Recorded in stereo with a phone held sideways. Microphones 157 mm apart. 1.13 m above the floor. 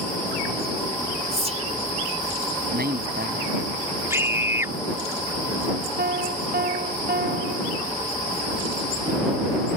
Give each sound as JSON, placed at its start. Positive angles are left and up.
{"t": 1.3, "sound": "whispering", "side_deg": -45}
{"t": 2.7, "sound": "a man speaking", "side_deg": -80}
{"t": 4.1, "sound": "a scream", "side_deg": -15}
{"t": 6.0, "sound": "a piano", "side_deg": -75}